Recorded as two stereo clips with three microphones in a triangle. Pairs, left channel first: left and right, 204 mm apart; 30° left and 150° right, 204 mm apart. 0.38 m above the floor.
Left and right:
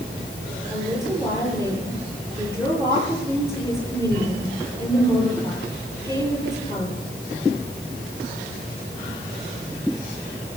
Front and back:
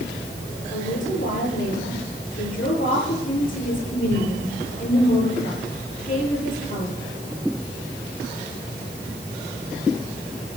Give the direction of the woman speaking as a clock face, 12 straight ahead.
1 o'clock.